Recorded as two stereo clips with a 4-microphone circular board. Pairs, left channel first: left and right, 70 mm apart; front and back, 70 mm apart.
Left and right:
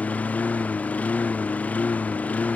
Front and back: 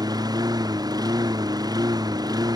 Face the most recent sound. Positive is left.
turn(degrees=160)